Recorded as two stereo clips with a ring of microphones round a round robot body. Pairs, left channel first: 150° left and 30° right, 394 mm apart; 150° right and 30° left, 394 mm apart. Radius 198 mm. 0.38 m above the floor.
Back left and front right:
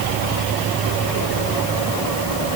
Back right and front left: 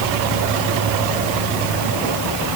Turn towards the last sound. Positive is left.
No sound to turn to.